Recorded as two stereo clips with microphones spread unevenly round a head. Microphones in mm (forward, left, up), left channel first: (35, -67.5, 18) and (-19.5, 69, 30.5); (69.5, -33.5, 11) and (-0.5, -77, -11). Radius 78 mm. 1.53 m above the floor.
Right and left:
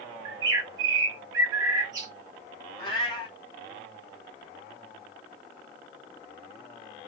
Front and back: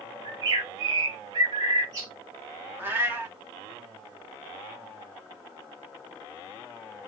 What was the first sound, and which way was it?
A bird, 160° left.